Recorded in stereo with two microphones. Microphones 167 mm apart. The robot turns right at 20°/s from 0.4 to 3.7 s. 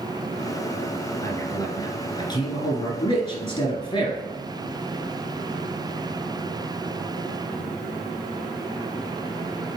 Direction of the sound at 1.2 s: 20° left (ahead or behind).